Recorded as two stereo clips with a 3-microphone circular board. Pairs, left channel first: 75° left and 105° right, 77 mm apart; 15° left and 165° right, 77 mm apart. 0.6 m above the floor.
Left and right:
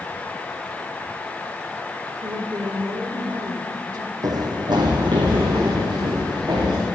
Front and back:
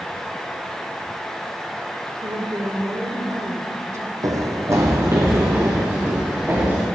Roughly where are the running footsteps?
Behind right.